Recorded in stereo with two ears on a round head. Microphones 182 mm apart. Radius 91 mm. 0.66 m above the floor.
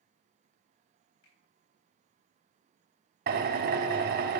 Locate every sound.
1.2 s a finger snap: 80° left, 3.5 m
3.3 s a drill: 50° right (ahead or behind), 0.9 m